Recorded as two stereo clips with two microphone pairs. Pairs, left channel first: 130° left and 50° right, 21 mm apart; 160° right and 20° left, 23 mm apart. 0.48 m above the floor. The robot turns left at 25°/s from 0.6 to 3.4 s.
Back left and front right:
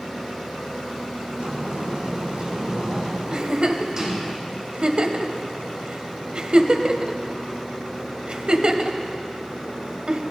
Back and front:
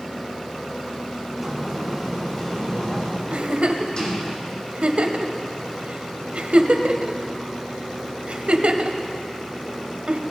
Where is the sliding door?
65° right, 3 m; by 4.3 s 115° right, 3 m.